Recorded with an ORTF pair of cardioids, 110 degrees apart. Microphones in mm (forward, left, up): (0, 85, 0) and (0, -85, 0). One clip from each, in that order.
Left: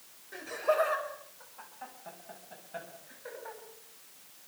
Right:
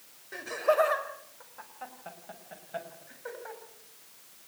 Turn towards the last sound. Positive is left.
turn(degrees=-25)